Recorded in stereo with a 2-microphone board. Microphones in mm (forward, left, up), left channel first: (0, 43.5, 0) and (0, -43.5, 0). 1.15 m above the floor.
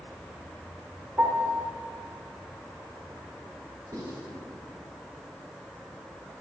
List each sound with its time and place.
1.2 s a piano: 20° right (ahead or behind), 1.4 m
3.9 s writing: 45° right (ahead or behind), 4.5 m